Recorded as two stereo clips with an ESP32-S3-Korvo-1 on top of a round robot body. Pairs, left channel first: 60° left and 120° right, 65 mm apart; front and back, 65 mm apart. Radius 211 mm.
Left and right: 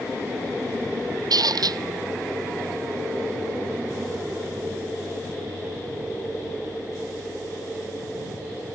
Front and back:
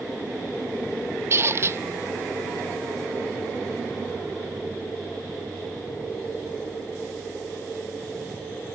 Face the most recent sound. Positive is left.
turn(degrees=-130)